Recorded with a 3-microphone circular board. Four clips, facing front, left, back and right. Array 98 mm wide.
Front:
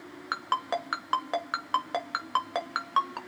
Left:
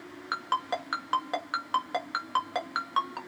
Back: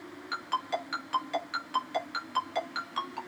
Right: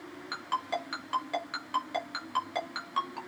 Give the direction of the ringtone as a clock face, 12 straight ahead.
11 o'clock.